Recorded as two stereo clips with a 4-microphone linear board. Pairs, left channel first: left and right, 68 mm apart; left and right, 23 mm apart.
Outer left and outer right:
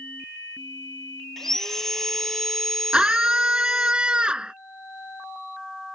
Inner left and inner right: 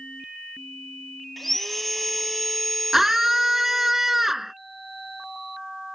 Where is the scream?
15° right (ahead or behind).